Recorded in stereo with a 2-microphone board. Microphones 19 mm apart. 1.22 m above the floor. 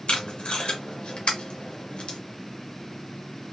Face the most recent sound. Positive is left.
turn(degrees=60)  # may be behind; listen again after turning